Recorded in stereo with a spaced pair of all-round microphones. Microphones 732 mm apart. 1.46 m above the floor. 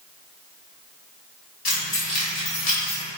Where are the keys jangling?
55° left (ahead or behind), 1.2 m; by 3.0 s 50° left (ahead or behind), 1.2 m.